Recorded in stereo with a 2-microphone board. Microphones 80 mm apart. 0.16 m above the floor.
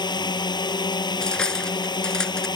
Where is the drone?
70° left (ahead or behind).